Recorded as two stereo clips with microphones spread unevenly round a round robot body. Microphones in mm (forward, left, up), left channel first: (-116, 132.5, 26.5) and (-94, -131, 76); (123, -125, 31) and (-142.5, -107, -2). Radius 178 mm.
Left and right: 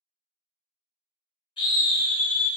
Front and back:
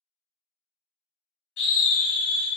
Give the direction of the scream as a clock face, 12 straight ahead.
11 o'clock.